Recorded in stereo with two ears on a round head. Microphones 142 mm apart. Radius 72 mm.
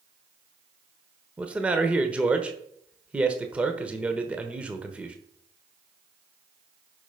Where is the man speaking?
10° right (ahead or behind), 1.1 m.